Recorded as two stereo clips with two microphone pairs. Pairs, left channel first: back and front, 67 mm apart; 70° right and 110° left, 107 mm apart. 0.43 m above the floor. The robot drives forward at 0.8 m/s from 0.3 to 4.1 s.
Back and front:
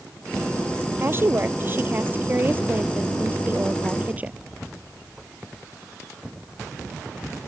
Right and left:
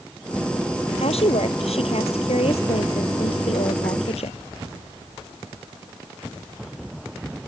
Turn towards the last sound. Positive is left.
turn(degrees=-65)